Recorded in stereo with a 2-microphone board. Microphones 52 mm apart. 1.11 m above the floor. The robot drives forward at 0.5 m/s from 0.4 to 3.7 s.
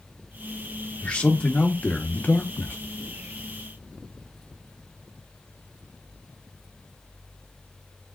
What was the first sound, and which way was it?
A man speaking, 20° left (ahead or behind).